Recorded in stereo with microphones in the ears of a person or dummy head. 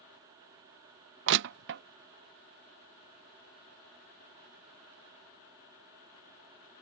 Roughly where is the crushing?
Right.